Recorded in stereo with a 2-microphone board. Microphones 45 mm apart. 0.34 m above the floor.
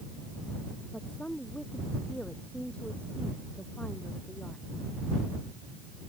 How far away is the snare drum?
I don't hear a snare drum.